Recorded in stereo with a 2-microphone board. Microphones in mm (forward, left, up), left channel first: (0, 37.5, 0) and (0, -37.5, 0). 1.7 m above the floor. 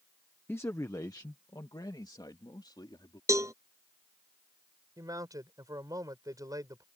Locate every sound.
0.5 s a man speaking: 25° left (ahead or behind); by 3.2 s 65° left (ahead or behind)
3.3 s a cowbell: 40° right (ahead or behind)
5.0 s a man speaking: 50° right (ahead or behind)